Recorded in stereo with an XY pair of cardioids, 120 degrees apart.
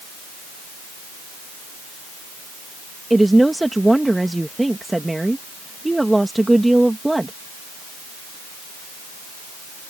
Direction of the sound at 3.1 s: 10° right.